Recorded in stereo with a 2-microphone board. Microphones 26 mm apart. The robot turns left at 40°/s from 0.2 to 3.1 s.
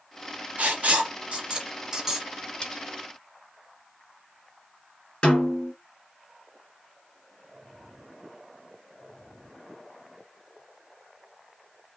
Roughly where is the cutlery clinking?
Left.